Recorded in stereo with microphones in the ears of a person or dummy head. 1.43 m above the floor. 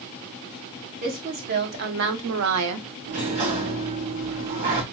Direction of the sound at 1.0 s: 40° right (ahead or behind).